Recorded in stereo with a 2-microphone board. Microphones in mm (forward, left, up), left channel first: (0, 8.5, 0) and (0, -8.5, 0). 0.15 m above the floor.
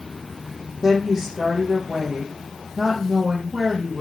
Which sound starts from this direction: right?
A woman speaking, at 0.8 s.